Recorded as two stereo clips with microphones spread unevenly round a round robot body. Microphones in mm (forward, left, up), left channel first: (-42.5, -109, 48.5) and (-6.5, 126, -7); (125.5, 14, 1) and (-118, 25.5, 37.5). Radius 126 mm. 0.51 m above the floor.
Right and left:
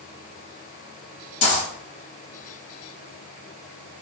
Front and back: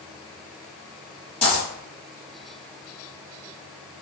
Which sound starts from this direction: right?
A dropped coin, at 1.4 s.